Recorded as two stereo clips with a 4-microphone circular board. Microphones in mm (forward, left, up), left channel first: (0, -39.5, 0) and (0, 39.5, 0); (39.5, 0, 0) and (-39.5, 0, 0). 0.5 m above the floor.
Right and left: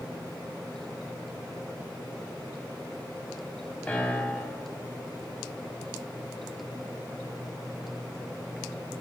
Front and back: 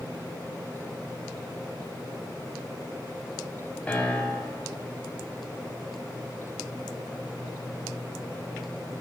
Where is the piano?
45° right, 0.5 m.